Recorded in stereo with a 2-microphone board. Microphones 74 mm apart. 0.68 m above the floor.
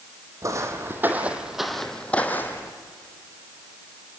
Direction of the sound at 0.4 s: 45° right (ahead or behind).